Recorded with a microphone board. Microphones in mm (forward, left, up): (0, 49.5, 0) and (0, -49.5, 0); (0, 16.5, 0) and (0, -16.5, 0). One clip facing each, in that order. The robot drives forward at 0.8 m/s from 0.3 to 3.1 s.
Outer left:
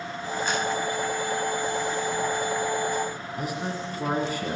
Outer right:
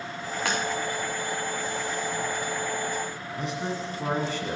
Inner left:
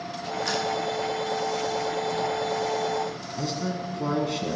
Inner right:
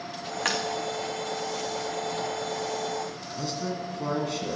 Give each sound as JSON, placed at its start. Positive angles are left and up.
{"t": 0.5, "sound": "tapping", "side_deg": -85, "distance_m": 2.5}
{"t": 3.4, "sound": "a man speaking", "side_deg": 5, "distance_m": 1.7}